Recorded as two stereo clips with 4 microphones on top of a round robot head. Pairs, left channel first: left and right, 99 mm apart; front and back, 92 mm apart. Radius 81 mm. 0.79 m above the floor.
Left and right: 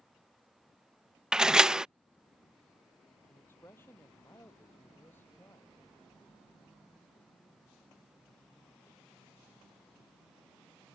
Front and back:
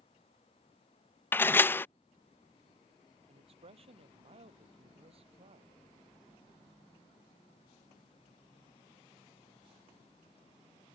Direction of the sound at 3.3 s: 165° left.